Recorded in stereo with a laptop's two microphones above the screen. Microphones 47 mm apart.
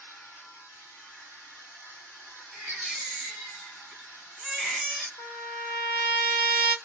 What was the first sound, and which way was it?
A machine running, 60° left (ahead or behind).